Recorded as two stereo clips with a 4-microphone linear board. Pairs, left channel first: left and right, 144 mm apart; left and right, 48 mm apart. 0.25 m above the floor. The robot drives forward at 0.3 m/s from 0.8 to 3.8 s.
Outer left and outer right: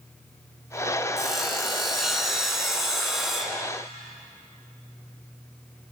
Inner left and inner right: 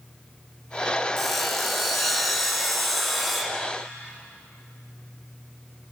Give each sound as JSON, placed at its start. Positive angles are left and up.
{"t": 1.2, "sound": "sawing", "side_deg": 0, "distance_m": 2.5}